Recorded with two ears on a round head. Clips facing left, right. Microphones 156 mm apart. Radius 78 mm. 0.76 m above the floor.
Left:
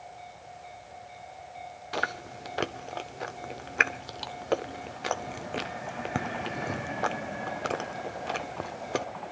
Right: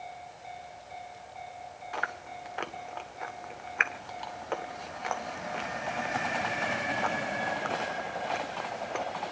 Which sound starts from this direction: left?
Chewing, at 1.9 s.